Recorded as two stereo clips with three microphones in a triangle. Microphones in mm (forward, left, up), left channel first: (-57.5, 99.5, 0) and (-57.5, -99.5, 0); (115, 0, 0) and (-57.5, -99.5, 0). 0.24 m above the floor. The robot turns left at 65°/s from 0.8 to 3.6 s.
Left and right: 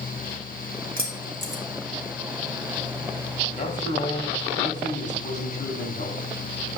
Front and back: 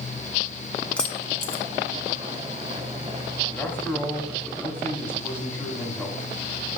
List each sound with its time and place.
1.0 s keys jangling: 55° right, 1.3 m; by 1.6 s 95° right, 1.3 m
3.5 s a man speaking: 110° left, 1.8 m; by 6.2 s 105° left, 1.8 m